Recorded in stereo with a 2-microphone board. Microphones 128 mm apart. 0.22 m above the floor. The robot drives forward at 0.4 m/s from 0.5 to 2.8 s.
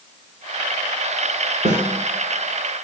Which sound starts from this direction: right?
A snare drum, at 1.6 s.